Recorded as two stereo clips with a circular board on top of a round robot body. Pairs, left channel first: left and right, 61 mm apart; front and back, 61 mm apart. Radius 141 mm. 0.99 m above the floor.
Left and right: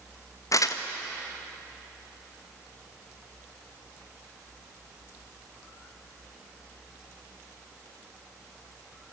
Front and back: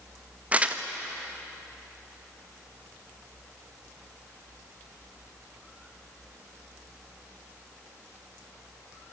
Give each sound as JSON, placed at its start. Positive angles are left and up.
{"t": 0.5, "sound": "crumpling", "azimuth_deg": 115, "distance_m": 1.5}